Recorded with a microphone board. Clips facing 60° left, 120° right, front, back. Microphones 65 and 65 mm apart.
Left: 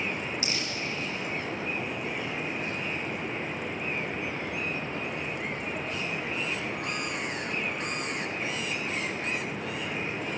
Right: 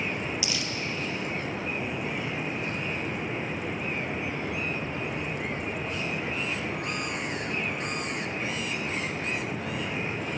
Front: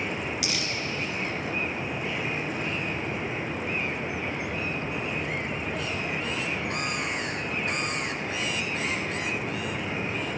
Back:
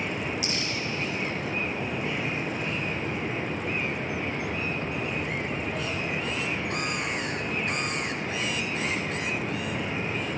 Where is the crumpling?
15° left, 3.5 m.